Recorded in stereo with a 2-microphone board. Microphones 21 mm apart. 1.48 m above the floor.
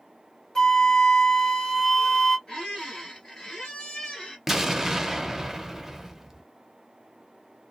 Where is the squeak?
40° left (ahead or behind), 1.9 m.